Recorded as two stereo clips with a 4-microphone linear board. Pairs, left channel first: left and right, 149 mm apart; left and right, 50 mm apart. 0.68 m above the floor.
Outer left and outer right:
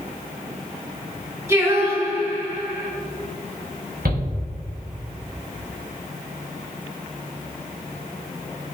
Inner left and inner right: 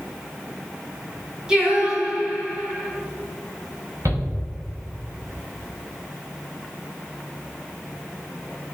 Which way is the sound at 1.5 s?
15° right (ahead or behind).